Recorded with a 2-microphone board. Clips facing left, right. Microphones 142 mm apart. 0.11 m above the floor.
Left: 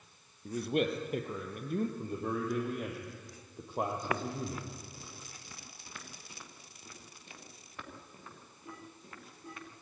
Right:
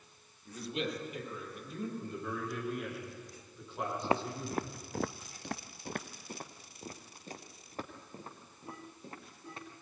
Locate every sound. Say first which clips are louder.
0.5 s a man speaking: left 6 dB; 55° left (ahead or behind), 3 m
2.0 s a man speaking: left 4 dB; 50° left (ahead or behind), 5 m
4.0 s footsteps: right 2 dB; 25° right (ahead or behind), 0.8 m; by 9.7 s 30° right (ahead or behind), 4.5 m